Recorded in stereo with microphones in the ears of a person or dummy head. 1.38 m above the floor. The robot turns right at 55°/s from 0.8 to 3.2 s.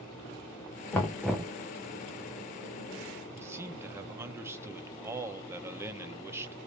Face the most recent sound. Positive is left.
turn(degrees=-15)  # may be behind; listen again after turning